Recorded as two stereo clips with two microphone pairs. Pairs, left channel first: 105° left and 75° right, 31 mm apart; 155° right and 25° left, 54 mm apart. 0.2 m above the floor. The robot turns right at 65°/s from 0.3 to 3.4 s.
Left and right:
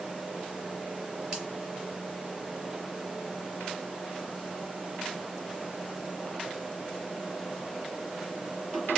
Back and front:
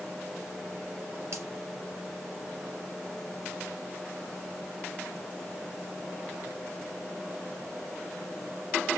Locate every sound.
1.3 s a finger snap: 10° right, 2.5 m; by 1.5 s straight ahead, 2.5 m